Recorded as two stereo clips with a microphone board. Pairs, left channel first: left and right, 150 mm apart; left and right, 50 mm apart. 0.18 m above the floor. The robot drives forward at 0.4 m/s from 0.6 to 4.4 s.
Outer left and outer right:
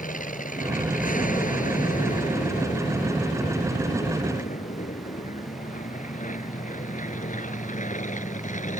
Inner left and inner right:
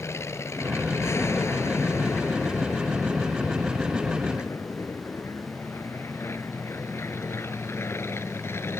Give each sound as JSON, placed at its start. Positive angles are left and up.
{"t": 0.0, "sound": "an aircraft", "side_deg": 65}